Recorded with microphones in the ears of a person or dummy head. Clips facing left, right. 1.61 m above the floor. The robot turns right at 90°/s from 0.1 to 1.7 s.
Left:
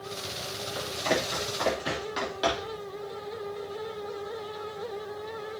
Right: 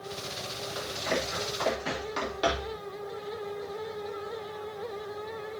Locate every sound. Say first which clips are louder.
0.8 s running footsteps: left 3 dB; 40° left (ahead or behind), 3.5 m; by 2.8 s centre (ahead or behind), 4 m